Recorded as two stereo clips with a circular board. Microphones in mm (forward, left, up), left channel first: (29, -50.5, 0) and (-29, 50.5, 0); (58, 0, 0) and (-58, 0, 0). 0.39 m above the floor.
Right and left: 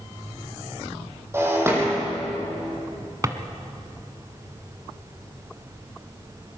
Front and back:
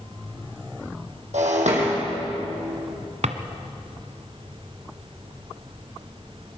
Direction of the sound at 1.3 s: 170° right.